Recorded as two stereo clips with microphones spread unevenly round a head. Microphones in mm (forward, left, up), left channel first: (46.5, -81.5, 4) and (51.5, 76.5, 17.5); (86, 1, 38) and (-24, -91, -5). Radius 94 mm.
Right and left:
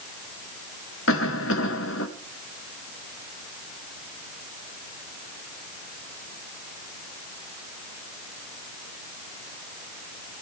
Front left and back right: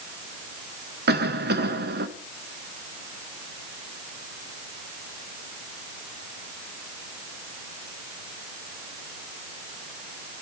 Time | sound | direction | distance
1.1 | a cough | 125° right | 1.7 m